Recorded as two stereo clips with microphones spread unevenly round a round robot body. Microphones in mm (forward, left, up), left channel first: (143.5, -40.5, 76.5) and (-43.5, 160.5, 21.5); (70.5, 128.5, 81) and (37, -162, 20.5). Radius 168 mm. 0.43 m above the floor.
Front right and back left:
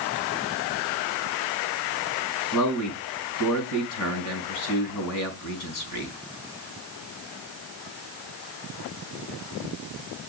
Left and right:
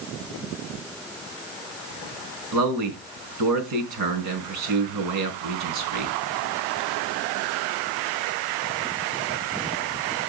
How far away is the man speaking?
About 4.5 m.